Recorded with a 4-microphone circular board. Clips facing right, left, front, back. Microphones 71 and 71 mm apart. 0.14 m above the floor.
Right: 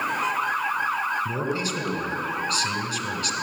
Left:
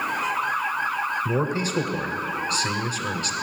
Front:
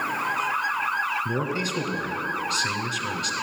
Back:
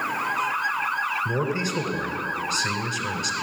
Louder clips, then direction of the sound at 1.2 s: Left 2 dB, back 1 dB; 95° left.